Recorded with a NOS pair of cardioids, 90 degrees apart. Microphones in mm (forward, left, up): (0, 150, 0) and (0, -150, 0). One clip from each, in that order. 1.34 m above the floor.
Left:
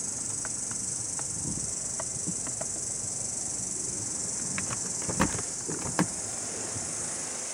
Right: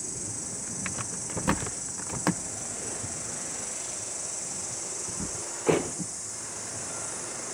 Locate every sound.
0.0 s an insect: 25° left, 0.7 m